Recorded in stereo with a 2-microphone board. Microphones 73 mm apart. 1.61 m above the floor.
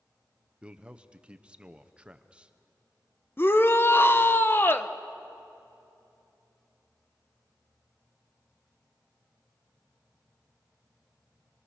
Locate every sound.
0.6 s a man speaking: 15° right (ahead or behind), 0.8 m
3.4 s a shout: 30° left (ahead or behind), 0.9 m